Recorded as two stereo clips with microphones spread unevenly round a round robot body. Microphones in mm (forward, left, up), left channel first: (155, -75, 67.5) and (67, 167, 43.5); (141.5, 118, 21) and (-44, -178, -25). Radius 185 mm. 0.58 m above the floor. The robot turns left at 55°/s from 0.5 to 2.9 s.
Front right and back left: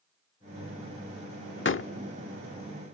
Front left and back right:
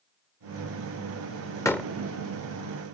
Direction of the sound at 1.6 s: 25° right.